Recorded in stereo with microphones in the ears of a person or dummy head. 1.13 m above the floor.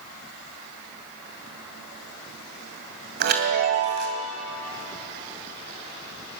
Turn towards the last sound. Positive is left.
turn(degrees=-50)  # may be behind; listen again after turning